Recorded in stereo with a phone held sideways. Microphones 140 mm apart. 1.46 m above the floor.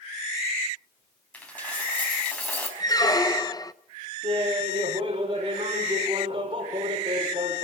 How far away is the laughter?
About 6.5 m.